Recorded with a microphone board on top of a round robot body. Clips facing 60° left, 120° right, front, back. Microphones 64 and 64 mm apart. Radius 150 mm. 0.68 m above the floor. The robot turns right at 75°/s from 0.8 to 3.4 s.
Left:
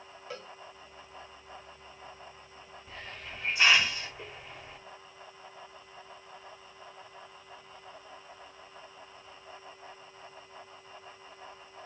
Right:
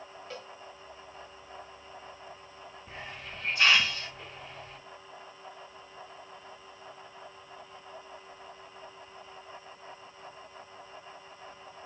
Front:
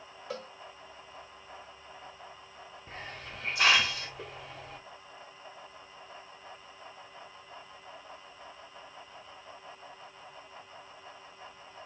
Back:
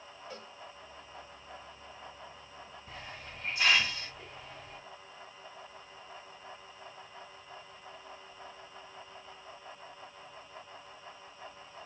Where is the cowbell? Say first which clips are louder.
Left 2 dB, front 9 dB; 25° right, 1.1 m.